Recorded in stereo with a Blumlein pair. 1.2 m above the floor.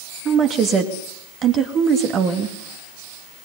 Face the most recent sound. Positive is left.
turn(degrees=-30)